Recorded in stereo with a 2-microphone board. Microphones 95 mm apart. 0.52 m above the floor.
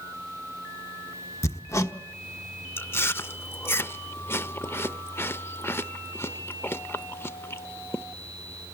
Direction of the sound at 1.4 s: 30° left (ahead or behind).